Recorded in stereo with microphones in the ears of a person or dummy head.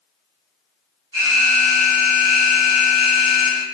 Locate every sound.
1.1 s an alarm: 20° right (ahead or behind), 1.2 m